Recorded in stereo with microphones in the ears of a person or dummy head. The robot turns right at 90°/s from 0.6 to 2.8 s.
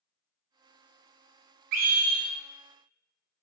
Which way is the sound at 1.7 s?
75° right.